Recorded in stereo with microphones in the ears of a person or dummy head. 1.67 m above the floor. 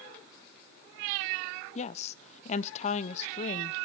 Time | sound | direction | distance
1.8 | a woman speaking | 40° left (ahead or behind) | 0.8 m